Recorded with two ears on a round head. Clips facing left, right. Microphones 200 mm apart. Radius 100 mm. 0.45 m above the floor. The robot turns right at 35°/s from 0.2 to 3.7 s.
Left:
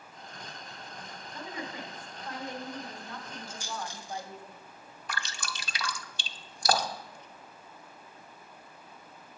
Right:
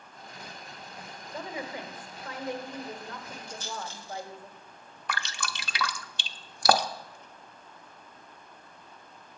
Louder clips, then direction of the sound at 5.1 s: Right 4 dB; 50° right (ahead or behind).